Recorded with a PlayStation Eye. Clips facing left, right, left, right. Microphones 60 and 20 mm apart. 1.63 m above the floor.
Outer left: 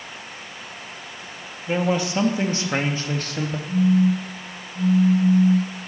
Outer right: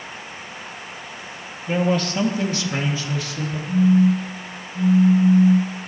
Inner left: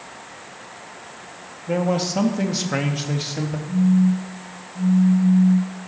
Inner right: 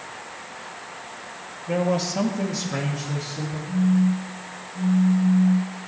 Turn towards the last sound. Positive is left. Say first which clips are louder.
# outer right 3 dB, inner left 3 dB
turn(degrees=-50)  # may be behind; listen again after turning